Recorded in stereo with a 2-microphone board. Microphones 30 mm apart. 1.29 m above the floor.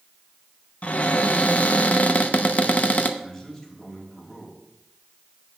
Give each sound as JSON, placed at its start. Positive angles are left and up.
{"t": 0.8, "sound": "a cupboard door", "side_deg": 55, "distance_m": 0.7}
{"t": 3.2, "sound": "a man speaking", "side_deg": 25, "distance_m": 3.5}